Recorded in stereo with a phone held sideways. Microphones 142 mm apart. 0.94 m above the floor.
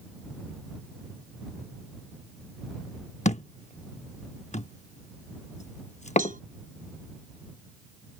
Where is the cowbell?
70° right (ahead or behind).